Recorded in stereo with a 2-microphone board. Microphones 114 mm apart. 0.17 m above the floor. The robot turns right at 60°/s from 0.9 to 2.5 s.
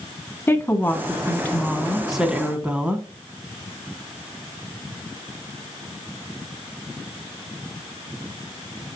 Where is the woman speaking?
25° left (ahead or behind), 1.7 m; by 3.0 s 10° right (ahead or behind), 1.7 m.